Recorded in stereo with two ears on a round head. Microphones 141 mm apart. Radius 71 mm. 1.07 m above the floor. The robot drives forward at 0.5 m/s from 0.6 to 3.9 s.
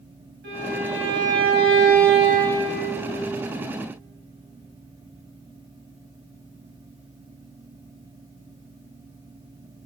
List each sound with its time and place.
0.4 s a violin: 80° right, 3 m; by 2.6 s 65° right (ahead or behind), 3.5 m